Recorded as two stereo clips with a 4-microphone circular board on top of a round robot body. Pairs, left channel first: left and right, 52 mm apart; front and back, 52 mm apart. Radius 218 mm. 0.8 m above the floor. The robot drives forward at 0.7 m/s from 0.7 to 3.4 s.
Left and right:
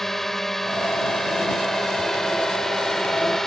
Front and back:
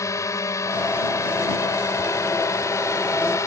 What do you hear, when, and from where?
0.0 s a drone: 5° left